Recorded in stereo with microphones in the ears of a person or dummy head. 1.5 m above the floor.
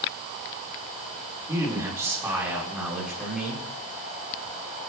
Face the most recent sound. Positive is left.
turn(degrees=-5)  # may be behind; listen again after turning